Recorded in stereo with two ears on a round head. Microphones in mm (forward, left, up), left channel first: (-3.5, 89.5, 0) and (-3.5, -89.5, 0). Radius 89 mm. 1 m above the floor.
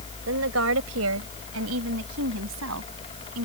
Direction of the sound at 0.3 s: 75° right (ahead or behind).